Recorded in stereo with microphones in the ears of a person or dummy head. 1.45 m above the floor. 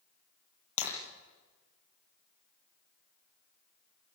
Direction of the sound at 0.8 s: 80° left.